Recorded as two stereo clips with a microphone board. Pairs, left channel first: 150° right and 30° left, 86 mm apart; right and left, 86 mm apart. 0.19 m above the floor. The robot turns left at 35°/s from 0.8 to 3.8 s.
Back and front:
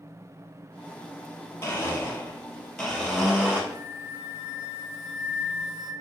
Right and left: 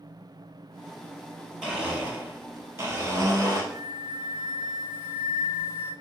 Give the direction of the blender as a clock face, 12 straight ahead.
6 o'clock.